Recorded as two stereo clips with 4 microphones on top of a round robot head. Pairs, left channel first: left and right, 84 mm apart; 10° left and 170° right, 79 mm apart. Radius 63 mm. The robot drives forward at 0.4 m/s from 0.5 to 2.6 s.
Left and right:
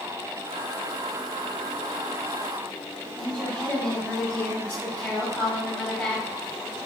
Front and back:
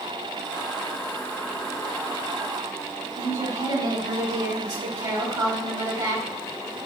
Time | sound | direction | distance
3.2 | a woman speaking | 165° left | 1.7 m